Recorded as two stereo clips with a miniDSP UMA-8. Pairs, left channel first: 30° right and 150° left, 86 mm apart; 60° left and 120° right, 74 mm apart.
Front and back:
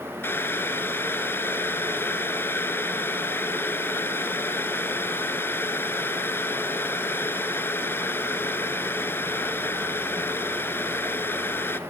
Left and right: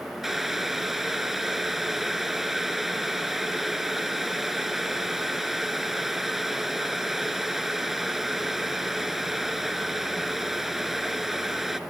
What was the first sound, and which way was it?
Boiling, 35° right.